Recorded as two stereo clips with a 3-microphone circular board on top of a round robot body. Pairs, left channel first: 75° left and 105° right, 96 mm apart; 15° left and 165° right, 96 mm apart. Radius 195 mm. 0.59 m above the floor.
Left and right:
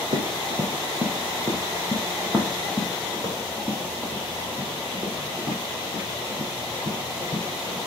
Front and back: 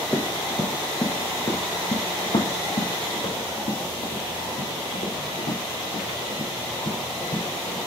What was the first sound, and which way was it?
Running footsteps, 60° right.